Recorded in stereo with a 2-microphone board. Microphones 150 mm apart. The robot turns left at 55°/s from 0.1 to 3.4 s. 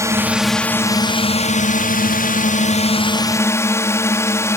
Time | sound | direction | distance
0.0 | a drone | 160° right | ?